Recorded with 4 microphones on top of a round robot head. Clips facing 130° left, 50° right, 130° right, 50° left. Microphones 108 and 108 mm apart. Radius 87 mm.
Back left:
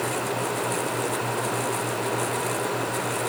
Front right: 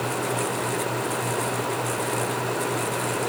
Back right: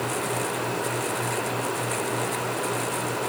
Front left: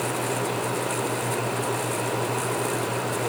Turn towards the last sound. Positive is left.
No sound to turn to.